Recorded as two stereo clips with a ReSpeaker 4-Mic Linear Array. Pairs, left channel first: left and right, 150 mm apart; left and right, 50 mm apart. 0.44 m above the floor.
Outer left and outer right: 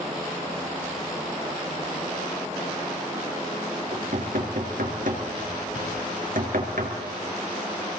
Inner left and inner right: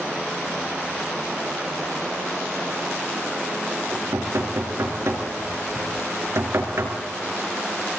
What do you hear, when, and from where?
3.9 s knocking: 65° right (ahead or behind), 5 m